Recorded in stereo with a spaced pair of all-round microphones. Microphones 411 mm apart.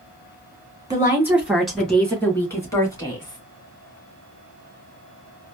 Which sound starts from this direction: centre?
A woman speaking, at 0.9 s.